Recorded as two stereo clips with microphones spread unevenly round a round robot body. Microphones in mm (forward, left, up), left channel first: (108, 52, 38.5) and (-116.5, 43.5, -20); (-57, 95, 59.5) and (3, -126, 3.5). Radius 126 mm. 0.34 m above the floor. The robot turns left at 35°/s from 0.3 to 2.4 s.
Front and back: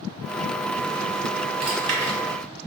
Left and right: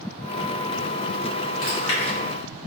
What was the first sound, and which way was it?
Chewing, 140° left.